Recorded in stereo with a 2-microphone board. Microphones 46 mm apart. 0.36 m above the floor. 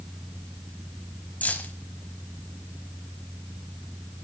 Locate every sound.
1.4 s keys jangling: 30° left (ahead or behind), 1.4 m